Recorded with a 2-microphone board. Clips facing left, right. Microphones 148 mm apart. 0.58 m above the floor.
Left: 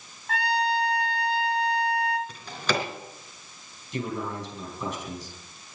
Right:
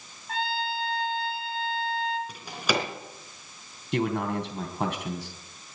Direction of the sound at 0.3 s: 80° left.